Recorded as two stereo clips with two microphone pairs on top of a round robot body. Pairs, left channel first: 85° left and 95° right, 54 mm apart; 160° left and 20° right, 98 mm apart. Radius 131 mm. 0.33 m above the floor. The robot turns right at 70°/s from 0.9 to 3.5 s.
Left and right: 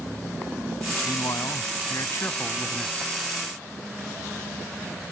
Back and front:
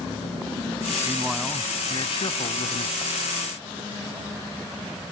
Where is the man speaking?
50° left; by 3.1 s 170° right.